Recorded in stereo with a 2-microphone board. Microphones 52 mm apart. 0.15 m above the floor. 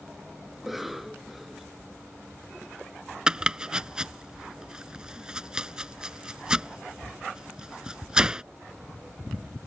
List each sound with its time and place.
0.5 s a cough: 5° right (ahead or behind)
3.3 s chopping: 15° right (ahead or behind)